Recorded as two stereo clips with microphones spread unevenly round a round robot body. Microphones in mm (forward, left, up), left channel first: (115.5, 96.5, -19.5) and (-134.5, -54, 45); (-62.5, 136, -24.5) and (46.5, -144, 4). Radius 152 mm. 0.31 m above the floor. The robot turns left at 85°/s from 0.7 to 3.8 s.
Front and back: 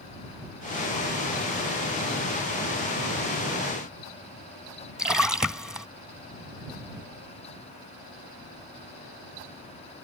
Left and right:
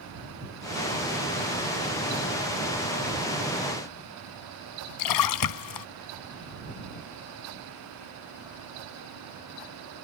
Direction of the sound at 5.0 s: 120° left.